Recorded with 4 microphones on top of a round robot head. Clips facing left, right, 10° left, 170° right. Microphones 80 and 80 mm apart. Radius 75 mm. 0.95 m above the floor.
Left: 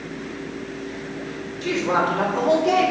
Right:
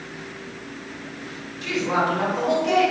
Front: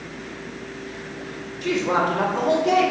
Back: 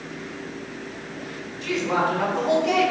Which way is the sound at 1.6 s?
40° left.